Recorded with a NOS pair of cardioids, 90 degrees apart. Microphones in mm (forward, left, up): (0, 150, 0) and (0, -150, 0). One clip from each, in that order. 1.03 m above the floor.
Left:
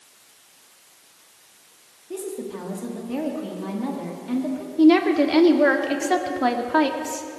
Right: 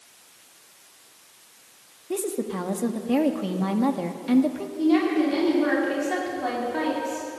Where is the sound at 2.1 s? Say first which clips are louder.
Right 3 dB; 40° right, 1.7 m.